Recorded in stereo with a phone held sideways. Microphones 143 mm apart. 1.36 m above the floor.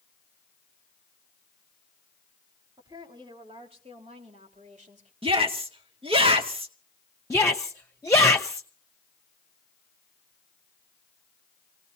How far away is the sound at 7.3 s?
About 1.0 m.